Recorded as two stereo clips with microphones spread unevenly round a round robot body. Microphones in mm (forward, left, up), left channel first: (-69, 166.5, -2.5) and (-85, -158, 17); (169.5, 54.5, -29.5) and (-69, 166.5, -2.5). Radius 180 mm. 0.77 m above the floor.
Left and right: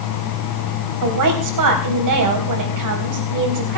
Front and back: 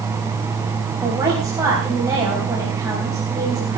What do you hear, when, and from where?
1.0 s a woman speaking: 125° right, 4 m